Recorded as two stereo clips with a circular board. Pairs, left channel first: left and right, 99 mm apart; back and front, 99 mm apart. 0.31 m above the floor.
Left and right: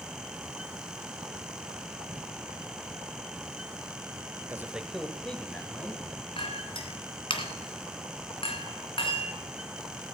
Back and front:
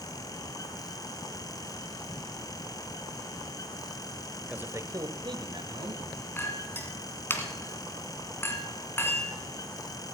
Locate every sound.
4.5 s a man speaking: 65° right, 0.9 m; by 6.0 s 20° left, 2 m
6.4 s a clink: 115° left, 1.8 m